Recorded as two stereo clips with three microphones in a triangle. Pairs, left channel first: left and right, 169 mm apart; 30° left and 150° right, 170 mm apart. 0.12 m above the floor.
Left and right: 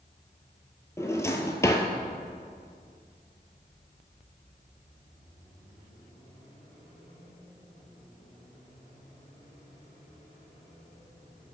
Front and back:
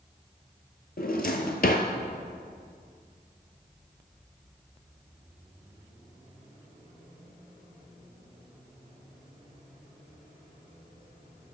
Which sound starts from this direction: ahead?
A drawer, at 1.0 s.